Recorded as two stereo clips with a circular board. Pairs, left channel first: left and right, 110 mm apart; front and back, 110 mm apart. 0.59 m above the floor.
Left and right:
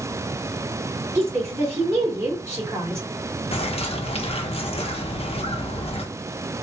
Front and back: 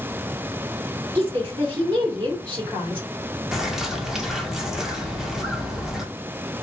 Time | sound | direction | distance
1.1 | a woman speaking | 150° right | 2.0 m
3.5 | a bird | 95° left | 0.7 m